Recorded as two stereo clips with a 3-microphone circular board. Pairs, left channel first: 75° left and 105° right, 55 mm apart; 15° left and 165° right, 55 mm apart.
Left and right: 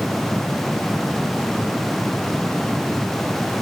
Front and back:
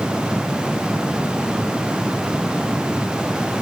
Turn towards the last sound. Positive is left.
No sound to turn to.